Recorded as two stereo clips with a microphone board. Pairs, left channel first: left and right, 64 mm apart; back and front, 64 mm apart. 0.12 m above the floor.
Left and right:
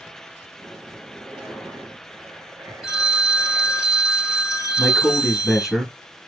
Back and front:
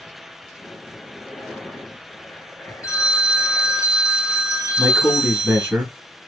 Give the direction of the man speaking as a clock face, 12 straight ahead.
12 o'clock.